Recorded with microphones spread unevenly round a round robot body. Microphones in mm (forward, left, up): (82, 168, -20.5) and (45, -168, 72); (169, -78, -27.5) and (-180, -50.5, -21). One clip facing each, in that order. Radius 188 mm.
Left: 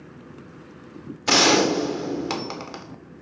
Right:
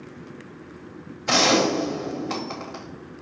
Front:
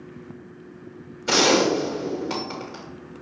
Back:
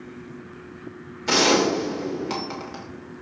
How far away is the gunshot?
About 2 m.